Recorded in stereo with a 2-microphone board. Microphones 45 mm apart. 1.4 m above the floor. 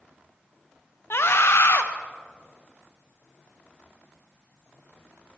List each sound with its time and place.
1.1 s a scream: 60° left (ahead or behind), 0.8 m